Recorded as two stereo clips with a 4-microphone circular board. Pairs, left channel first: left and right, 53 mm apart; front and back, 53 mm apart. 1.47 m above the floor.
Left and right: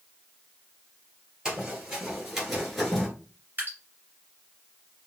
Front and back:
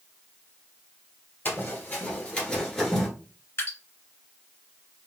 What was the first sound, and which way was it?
Running footsteps, 20° right.